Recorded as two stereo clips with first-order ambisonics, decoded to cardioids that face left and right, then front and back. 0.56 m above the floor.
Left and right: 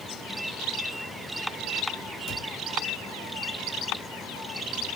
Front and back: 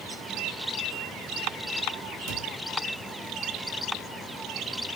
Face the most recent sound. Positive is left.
turn(degrees=150)